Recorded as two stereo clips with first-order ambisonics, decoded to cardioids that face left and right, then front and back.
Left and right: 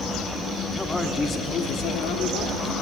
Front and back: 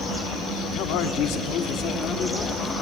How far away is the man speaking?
About 1.8 m.